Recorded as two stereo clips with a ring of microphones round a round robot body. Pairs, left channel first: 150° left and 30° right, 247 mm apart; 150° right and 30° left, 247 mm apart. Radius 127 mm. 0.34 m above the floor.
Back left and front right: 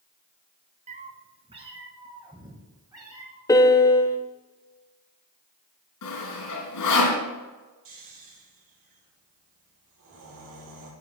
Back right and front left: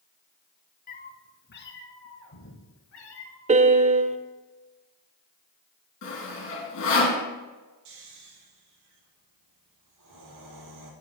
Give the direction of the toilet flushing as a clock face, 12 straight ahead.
No toilet flushing in this recording.